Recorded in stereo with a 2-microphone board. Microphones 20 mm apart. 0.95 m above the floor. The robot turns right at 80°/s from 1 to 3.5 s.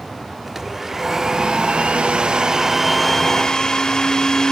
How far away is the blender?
About 1.4 m.